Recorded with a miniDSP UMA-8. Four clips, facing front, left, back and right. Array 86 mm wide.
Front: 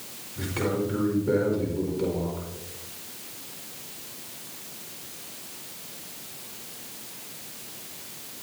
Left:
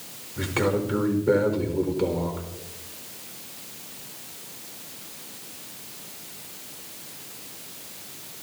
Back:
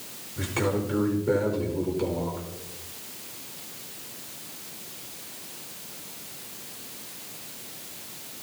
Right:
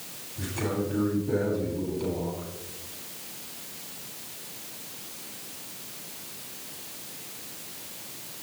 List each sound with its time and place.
0.4 s a man speaking: 100° left, 5 m